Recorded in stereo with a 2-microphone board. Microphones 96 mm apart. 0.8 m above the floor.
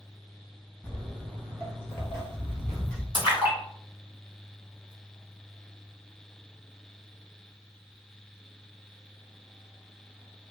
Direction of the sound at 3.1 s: 70° left (ahead or behind).